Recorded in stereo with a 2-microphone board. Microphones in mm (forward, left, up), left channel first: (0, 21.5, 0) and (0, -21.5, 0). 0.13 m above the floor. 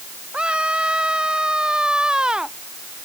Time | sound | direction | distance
0.3 | a scream | 25° right (ahead or behind) | ?